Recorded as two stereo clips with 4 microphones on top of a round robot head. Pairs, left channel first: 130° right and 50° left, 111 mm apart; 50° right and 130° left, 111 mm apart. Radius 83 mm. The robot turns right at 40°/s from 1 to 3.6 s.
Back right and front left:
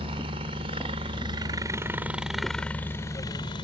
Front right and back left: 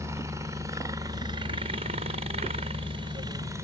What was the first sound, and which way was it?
A helicopter, 70° left.